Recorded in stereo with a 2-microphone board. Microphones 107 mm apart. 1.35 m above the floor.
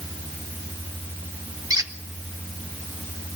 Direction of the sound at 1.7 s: 35° right (ahead or behind).